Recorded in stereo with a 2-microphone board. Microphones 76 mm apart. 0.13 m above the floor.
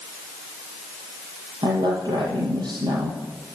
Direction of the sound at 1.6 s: 70° right (ahead or behind).